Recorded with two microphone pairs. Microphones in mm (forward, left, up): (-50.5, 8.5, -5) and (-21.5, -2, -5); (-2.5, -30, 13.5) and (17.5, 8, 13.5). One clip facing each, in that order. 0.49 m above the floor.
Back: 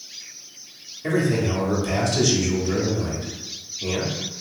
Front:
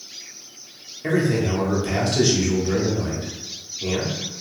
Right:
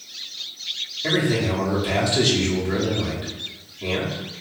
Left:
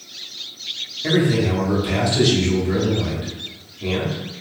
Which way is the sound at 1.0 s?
35° right.